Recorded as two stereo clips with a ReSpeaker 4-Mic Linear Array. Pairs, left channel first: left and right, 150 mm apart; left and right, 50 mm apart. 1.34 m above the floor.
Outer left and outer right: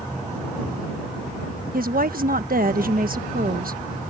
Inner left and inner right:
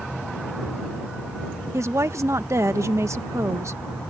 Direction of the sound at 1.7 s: 75° right (ahead or behind).